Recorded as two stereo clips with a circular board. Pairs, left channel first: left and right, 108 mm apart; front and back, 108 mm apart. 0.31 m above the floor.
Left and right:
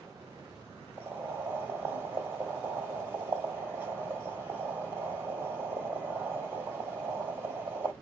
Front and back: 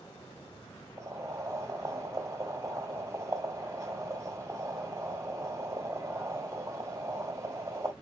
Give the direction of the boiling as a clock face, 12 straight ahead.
5 o'clock.